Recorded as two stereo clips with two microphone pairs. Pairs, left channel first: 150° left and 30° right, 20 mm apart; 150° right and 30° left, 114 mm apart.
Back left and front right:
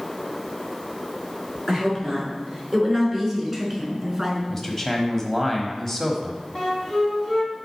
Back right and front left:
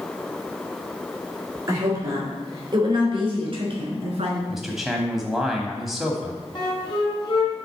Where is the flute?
165° right, 2 m.